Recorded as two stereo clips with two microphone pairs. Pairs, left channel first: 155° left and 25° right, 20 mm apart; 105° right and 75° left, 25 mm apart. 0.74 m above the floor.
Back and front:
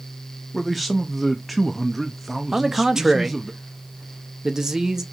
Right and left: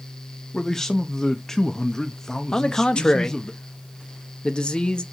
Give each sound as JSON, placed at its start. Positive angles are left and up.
{"t": 0.5, "sound": "a man speaking", "azimuth_deg": -105, "distance_m": 0.6}
{"t": 2.5, "sound": "a man speaking", "azimuth_deg": -80, "distance_m": 0.7}